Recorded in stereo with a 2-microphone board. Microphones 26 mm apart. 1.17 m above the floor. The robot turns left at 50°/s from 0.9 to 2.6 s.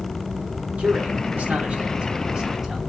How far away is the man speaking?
About 3 m.